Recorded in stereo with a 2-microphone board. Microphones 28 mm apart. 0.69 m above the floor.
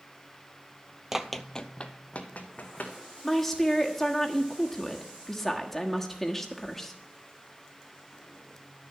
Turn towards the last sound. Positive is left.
turn(degrees=10)  # may be behind; listen again after turning